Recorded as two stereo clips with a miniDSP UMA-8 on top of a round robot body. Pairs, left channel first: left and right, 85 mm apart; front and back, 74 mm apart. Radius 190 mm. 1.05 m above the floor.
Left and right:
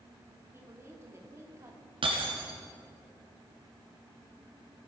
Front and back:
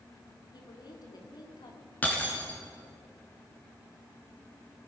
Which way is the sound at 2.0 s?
70° right.